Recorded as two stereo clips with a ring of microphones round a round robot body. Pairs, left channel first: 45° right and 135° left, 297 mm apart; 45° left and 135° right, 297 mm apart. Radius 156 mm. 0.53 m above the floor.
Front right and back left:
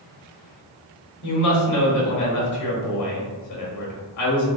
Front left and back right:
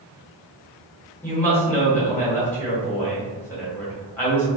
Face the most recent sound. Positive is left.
turn(degrees=-40)